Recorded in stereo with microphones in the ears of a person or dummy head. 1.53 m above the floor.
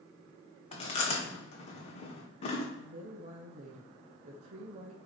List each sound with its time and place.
0.7 s chewing: 30° left (ahead or behind), 1.4 m
2.8 s a woman speaking: 40° right (ahead or behind), 0.7 m